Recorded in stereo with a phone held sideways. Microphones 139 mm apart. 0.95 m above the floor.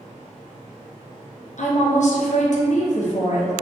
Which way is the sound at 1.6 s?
60° left (ahead or behind).